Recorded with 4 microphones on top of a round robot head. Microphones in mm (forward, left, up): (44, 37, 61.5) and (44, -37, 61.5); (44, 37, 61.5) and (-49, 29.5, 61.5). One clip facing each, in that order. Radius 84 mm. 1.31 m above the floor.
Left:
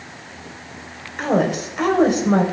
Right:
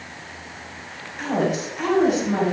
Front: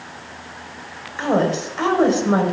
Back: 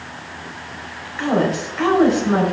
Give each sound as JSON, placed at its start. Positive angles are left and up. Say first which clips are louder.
{"t": 1.2, "sound": "a woman speaking", "louder": "left 4 dB, even", "azimuth_deg": 65, "distance_m": 4.5}